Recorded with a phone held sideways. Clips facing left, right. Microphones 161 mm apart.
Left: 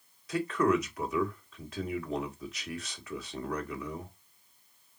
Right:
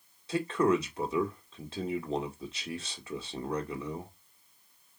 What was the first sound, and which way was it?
A man speaking, 30° right (ahead or behind).